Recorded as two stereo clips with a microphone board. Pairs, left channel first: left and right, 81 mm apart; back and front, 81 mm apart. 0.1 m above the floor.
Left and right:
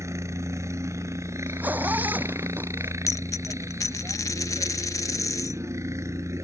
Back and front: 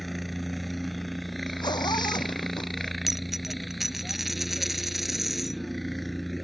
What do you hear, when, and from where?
0.0 s a helicopter: 90° right
1.5 s a zipper: 160° right
3.1 s a dropped coin: 85° left